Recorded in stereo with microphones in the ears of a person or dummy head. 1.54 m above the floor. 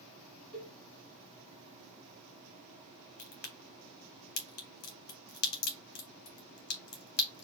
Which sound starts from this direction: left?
A crack, at 3.2 s.